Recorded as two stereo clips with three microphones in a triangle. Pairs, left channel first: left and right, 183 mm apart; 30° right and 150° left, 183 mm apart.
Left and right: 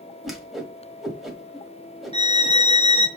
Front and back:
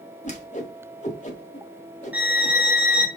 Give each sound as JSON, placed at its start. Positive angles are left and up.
{"t": 0.2, "sound": "a whoosh", "azimuth_deg": 0, "distance_m": 1.6}
{"t": 2.1, "sound": "a violin", "azimuth_deg": 75, "distance_m": 0.9}